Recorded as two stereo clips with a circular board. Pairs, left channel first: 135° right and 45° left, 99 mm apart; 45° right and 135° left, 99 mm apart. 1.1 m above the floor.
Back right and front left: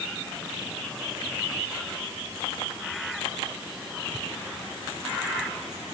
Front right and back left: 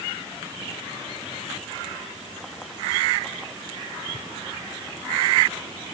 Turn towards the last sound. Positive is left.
No sound to turn to.